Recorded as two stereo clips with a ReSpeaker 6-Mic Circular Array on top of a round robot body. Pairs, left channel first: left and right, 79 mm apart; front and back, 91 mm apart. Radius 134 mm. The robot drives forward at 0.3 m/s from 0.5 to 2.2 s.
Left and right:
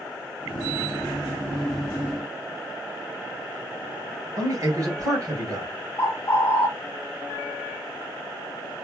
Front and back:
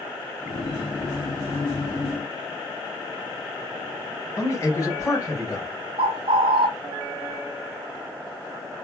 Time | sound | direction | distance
4.4 | a man speaking | 55° right | 3 m
6.0 | a bird | 150° left | 0.6 m